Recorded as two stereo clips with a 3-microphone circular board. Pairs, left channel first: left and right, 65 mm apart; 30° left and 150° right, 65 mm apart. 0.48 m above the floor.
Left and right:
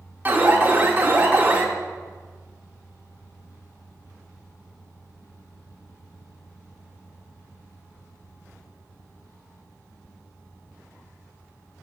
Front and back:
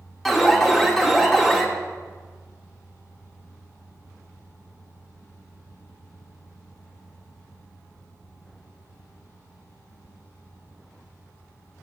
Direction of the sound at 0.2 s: 50° right.